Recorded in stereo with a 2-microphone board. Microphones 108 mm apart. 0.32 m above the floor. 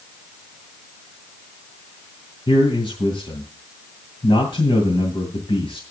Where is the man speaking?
55° left (ahead or behind), 2.5 m.